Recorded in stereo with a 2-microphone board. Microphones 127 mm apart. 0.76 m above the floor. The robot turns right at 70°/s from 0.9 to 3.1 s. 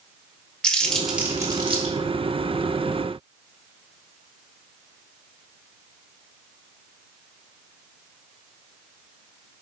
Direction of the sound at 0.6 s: 5° left (ahead or behind).